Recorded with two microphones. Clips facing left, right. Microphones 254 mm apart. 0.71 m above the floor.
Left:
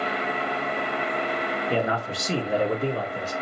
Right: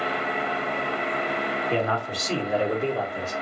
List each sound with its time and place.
1.7 s a man speaking: 10° left (ahead or behind), 1.0 m; by 3.3 s 45° left (ahead or behind), 1.8 m